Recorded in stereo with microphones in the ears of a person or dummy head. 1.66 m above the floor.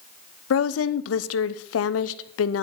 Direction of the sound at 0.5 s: 75° left (ahead or behind).